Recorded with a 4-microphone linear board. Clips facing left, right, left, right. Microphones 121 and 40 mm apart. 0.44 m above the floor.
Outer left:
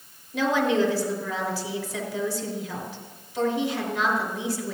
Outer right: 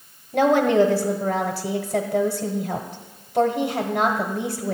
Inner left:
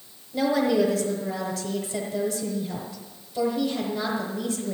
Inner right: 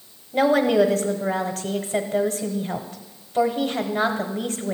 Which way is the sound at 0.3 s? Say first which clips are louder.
Outer right 6 dB, inner right 4 dB; 55° right (ahead or behind).